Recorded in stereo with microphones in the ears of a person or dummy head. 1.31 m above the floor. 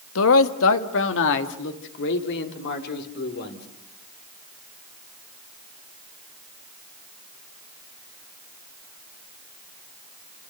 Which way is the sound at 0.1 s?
70° left (ahead or behind).